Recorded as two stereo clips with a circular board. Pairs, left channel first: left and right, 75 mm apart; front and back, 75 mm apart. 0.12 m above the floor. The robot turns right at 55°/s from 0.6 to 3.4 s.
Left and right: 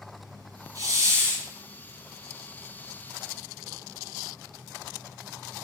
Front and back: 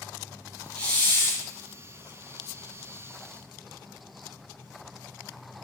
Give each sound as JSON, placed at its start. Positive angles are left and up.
{"t": 0.8, "sound": "a hiss", "azimuth_deg": -75, "distance_m": 0.9}